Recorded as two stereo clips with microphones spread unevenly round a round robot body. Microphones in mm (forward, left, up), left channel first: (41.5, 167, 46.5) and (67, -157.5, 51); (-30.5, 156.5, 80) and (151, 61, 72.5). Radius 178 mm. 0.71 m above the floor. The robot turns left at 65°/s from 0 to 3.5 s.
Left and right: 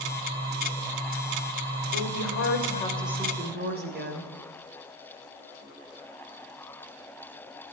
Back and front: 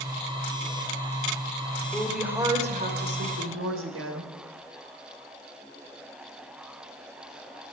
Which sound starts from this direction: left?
A woman speaking, at 1.9 s.